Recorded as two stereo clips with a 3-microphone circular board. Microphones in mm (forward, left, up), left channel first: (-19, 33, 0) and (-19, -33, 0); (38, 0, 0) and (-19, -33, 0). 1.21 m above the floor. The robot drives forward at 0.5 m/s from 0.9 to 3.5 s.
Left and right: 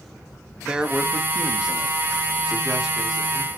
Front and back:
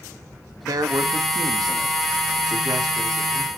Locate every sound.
0.6 s a man speaking: 165° right, 1.5 m; by 3.5 s 175° right, 3 m